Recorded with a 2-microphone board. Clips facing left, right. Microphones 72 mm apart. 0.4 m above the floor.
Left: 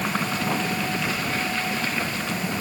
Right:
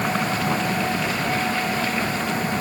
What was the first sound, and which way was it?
Only background noise.